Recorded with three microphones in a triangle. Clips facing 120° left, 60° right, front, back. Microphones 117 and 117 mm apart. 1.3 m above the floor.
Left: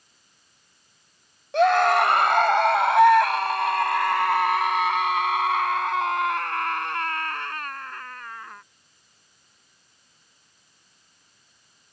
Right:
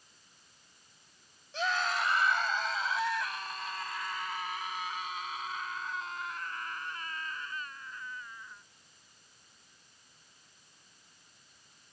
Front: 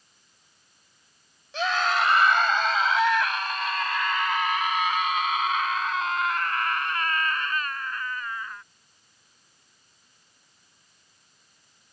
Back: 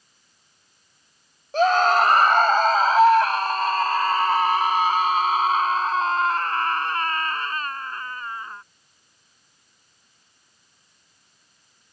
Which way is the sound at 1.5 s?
135° left.